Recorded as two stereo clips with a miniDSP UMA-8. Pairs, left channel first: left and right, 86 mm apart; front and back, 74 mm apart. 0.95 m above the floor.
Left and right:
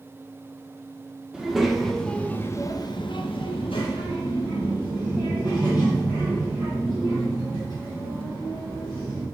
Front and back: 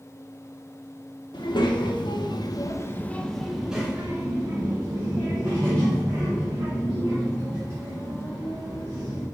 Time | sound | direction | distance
1.3 | a child speaking | 5° right | 1.4 m